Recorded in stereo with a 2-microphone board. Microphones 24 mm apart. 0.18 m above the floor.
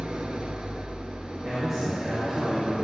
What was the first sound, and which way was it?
An engine running, 50° right (ahead or behind).